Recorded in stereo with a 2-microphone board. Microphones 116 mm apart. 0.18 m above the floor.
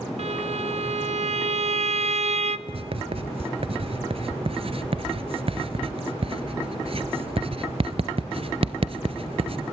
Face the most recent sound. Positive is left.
turn(degrees=-55)  # may be behind; listen again after turning